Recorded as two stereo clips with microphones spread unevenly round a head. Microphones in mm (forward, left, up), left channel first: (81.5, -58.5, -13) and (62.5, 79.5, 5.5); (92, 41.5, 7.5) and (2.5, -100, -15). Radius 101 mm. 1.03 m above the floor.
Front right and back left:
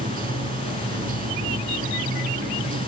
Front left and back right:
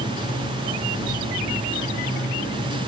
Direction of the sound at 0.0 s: 100° left.